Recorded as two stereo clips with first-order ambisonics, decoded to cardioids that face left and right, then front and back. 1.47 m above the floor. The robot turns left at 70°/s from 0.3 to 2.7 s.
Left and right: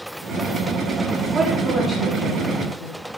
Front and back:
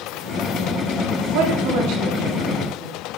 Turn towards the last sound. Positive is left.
turn(degrees=100)